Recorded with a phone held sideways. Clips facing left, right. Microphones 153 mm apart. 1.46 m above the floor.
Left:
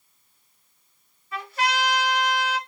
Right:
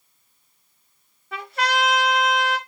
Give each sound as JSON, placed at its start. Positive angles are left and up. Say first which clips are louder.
{"t": 1.3, "sound": "a trumpet", "louder": "right 2 dB", "side_deg": -65, "distance_m": 1.2}